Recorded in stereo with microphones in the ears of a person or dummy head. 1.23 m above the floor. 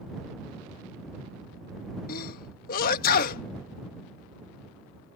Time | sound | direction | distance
2.1 | a sneeze | 50° left (ahead or behind) | ?